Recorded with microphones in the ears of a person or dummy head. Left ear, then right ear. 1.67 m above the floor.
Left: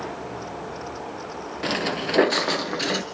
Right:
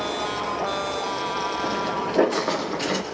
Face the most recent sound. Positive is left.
turn(degrees=10)  # may be behind; listen again after turning